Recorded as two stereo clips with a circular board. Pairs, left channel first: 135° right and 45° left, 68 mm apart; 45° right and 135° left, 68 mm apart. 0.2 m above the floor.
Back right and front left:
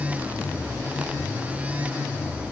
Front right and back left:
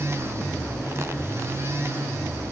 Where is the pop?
I don't hear a pop.